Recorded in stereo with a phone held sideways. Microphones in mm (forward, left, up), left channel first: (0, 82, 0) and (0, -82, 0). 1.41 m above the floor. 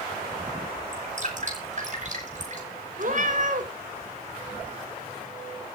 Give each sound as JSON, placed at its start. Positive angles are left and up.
{"t": 0.9, "sound": "dripping", "side_deg": -50, "distance_m": 9.5}
{"t": 3.0, "sound": "a cat meowing", "side_deg": -55, "distance_m": 3.0}